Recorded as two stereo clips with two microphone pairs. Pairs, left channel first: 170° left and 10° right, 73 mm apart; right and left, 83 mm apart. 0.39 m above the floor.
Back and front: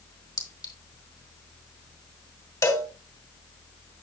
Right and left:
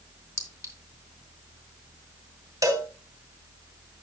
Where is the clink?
145° left, 3 m.